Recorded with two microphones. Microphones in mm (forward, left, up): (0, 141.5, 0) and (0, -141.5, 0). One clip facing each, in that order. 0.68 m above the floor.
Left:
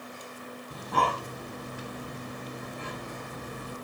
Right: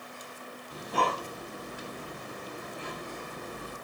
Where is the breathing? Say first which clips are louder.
Even; 65° left (ahead or behind), 4.5 m.